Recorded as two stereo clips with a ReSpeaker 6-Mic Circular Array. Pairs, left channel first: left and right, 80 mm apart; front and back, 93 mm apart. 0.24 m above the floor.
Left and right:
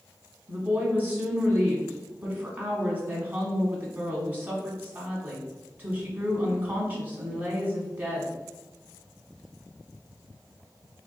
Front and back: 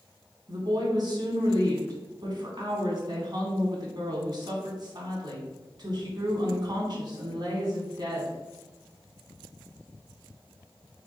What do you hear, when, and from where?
0.5 s a woman speaking: 155° right, 1.7 m